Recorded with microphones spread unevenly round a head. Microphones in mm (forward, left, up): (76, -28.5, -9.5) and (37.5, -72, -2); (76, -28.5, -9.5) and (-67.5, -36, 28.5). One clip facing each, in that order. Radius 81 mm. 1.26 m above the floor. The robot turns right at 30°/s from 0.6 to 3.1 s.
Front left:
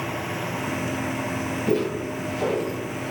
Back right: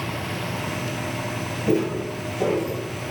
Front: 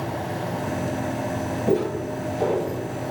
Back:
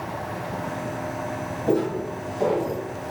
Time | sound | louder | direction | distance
1.7 | footsteps | back right 2 dB, even | 80° right | 1.5 m